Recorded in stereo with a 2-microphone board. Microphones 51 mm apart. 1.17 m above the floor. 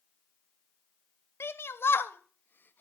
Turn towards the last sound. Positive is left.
turn(degrees=40)  # may be behind; listen again after turning